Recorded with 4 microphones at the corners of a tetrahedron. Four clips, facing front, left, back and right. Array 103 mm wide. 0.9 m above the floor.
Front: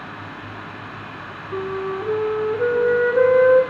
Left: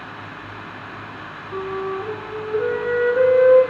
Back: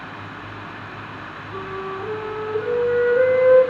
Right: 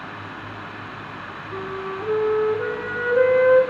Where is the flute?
10° left, 0.9 m.